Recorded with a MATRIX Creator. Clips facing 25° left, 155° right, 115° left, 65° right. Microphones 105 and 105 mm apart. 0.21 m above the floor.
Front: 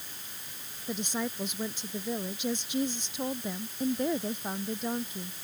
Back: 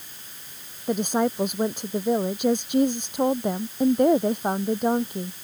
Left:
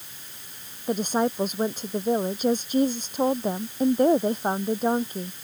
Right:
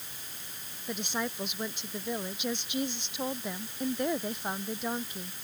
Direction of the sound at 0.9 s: 165° left.